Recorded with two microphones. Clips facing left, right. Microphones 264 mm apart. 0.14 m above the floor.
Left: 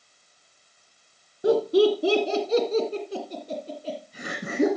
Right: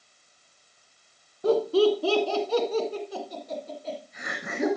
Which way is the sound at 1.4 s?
10° left (ahead or behind).